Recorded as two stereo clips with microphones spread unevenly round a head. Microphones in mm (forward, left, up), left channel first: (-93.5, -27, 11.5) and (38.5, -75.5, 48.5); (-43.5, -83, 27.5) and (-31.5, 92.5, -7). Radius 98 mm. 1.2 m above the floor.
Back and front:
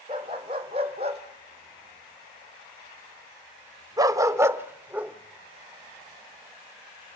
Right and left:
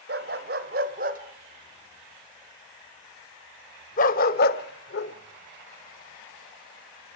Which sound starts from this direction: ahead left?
A dog barking, at 0.1 s.